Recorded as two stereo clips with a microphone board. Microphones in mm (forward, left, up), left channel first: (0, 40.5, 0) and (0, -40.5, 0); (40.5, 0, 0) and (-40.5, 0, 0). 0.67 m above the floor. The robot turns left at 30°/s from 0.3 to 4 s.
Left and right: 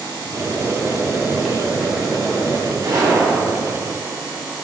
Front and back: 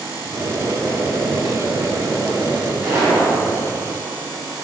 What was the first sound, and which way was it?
Boiling, 140° right.